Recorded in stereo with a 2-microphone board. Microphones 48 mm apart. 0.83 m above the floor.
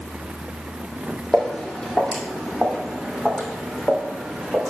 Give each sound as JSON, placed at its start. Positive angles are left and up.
{"t": 1.3, "sound": "footsteps", "side_deg": 15, "distance_m": 2.0}